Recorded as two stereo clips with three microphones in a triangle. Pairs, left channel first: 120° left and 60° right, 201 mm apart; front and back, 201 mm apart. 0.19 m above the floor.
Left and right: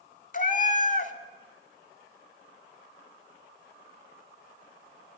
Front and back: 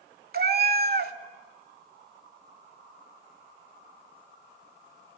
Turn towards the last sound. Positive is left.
turn(degrees=160)